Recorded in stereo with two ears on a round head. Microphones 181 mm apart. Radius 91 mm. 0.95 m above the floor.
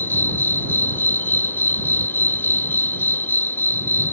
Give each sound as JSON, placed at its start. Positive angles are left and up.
{"t": 0.0, "sound": "an insect", "side_deg": 10}